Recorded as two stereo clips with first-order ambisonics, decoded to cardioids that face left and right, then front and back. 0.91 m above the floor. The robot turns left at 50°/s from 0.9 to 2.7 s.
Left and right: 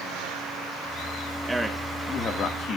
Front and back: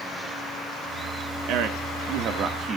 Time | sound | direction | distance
1.5 | a man speaking | 170° right | 1.6 m